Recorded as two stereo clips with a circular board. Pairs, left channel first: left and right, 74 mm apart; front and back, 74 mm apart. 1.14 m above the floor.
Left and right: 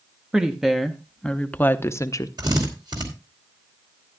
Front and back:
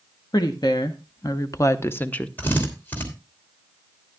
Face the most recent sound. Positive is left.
turn(degrees=-65)